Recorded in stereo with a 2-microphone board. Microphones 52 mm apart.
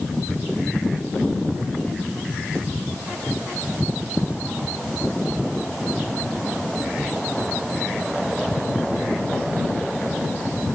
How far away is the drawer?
No drawer in this recording.